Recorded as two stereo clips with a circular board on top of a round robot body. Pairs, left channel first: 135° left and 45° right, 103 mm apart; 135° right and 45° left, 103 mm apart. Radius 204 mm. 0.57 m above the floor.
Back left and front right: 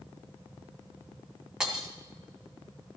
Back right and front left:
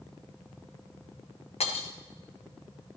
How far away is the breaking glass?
About 1.6 m.